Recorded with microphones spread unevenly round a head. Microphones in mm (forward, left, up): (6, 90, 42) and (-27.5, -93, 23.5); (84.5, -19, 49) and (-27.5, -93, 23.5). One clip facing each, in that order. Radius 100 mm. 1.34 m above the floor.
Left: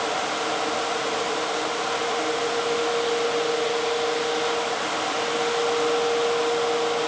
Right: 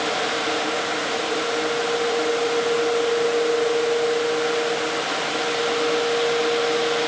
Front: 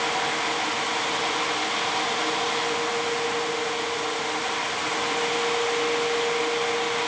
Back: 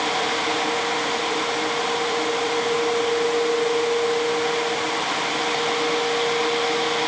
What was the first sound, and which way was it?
Only background noise.